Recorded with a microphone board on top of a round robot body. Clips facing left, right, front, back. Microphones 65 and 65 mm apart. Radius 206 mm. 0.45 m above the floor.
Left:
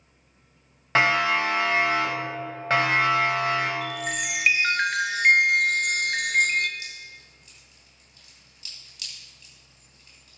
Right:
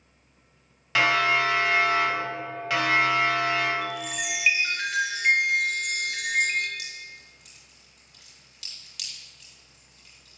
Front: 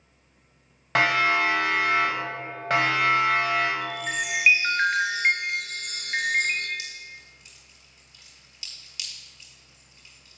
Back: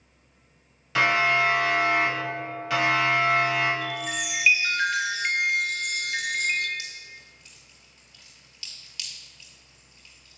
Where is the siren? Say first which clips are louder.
Left 1 dB, even; 35° left, 6 m; by 3.7 s 45° left, 4 m.